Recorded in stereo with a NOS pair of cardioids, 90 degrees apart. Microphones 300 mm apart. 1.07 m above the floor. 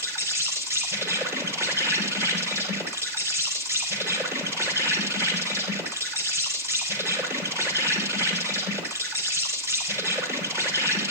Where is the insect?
10° right, 4.5 m.